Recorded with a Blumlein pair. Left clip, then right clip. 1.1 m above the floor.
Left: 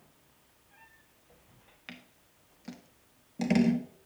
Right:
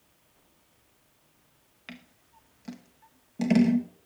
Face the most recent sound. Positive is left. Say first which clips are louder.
# right 2 dB
turn(degrees=-5)